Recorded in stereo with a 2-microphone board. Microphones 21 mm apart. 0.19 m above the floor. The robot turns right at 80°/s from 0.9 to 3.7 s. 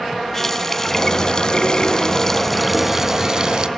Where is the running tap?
30° left, 0.9 m; by 3.7 s 105° right, 0.9 m.